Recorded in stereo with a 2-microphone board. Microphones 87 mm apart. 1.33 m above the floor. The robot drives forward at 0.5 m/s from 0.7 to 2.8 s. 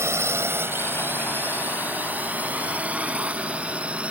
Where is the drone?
30° right (ahead or behind); by 4.1 s 15° right (ahead or behind).